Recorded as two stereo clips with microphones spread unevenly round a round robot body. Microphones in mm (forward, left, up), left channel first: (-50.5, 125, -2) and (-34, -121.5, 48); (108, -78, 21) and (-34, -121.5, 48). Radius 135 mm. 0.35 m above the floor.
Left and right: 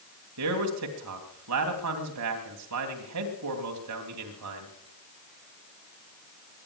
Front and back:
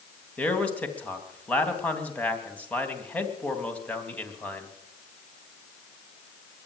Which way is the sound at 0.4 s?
60° right.